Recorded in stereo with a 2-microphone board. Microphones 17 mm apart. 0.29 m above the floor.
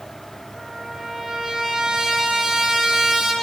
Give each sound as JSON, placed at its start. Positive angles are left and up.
{"t": 0.6, "sound": "a trumpet", "side_deg": -10, "distance_m": 5.5}